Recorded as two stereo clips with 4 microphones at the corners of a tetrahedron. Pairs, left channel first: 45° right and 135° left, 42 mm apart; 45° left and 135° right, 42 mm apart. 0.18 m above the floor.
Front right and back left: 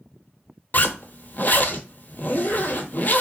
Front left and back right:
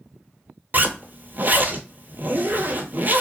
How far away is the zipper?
About 0.8 m.